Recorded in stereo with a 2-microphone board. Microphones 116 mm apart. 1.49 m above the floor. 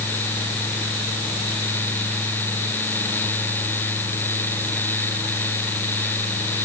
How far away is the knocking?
No knocking in this recording.